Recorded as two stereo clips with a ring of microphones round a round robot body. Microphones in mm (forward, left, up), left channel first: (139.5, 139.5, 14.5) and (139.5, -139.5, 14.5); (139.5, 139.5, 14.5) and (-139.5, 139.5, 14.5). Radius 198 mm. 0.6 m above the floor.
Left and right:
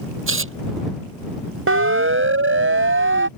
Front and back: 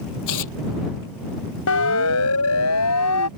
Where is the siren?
50° right; by 3.3 s 45° right.